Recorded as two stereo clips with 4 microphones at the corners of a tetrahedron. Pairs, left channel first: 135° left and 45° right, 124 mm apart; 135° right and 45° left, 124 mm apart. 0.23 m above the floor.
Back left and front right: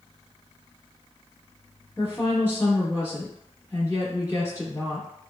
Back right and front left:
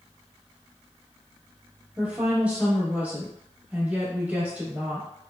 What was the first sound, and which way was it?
A woman speaking, 110° left.